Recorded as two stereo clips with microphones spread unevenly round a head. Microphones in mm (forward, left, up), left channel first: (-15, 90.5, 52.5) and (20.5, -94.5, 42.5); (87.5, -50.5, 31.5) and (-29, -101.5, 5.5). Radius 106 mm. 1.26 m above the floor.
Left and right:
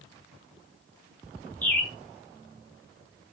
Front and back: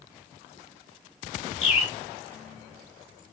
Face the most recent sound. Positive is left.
turn(degrees=20)